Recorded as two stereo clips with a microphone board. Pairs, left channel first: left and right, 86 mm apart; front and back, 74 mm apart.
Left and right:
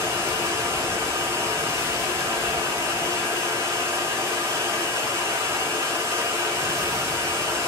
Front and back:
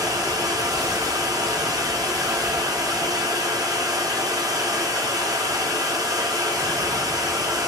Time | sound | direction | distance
0.0 | running water | 145° right | 3 m